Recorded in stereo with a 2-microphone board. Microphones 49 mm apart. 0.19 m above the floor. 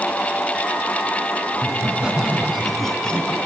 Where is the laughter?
25° right (ahead or behind), 3 m; by 3.4 s 25° left (ahead or behind), 1.9 m.